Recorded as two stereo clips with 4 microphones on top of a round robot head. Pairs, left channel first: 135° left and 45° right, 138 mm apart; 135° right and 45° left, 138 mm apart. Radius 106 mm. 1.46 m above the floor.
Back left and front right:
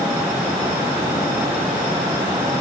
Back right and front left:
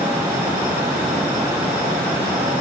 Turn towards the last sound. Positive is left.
No sound to turn to.